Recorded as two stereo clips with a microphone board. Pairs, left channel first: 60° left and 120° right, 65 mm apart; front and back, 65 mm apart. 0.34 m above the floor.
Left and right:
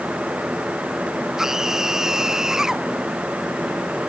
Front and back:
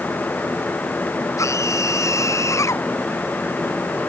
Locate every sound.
1.4 s a scream: 40° right